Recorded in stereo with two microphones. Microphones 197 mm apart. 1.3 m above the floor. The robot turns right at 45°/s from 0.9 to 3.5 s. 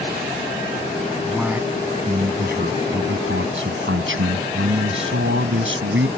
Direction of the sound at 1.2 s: 175° left.